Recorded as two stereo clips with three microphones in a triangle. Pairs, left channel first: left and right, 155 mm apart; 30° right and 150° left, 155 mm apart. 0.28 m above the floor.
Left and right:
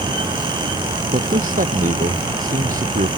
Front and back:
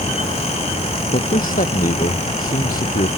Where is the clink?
No clink in this recording.